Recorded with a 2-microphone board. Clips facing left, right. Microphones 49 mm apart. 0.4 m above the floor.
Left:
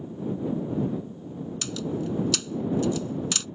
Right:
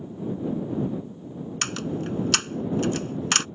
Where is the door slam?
55° right (ahead or behind).